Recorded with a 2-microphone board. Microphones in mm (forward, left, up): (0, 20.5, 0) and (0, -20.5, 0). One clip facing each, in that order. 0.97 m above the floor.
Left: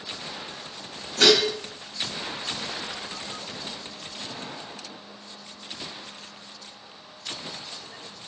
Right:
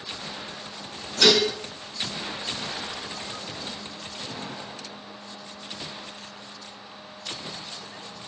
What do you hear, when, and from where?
1.2 s dishes clattering: 85° left, 1.6 m